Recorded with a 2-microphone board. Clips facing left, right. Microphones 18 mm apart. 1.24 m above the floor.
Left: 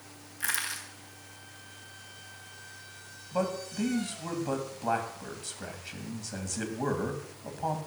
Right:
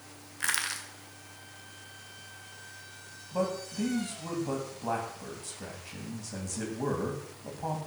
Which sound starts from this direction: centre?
A man speaking, at 3.3 s.